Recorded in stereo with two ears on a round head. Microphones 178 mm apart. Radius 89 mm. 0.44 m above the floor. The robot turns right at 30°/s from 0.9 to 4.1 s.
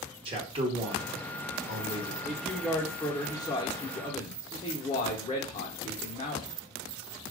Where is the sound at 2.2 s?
5° left, 0.9 m; by 6.5 s 60° left, 0.9 m.